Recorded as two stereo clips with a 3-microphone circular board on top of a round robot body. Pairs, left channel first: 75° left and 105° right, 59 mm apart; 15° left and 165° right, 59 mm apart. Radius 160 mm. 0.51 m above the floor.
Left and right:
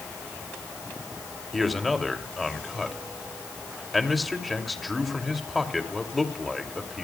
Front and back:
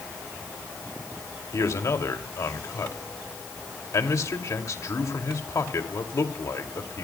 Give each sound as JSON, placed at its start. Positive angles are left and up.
{"t": 1.5, "sound": "a man speaking", "azimuth_deg": -15, "distance_m": 2.5}